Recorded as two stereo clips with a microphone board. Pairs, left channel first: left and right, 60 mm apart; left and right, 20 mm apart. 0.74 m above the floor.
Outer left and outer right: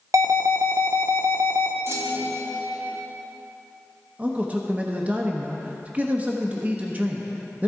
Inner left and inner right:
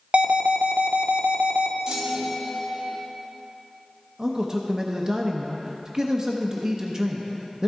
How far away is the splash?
I don't hear a splash.